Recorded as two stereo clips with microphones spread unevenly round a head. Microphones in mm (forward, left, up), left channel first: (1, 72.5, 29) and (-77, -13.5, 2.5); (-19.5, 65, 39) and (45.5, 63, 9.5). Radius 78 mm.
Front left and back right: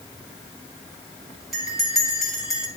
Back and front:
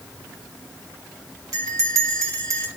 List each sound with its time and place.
1.5 s a bell: 45° right, 2.5 m